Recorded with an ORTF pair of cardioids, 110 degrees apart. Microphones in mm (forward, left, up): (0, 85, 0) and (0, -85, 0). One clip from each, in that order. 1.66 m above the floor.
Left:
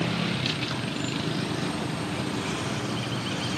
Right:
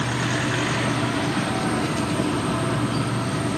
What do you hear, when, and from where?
0.0 s an insect: 55° right, 1.7 m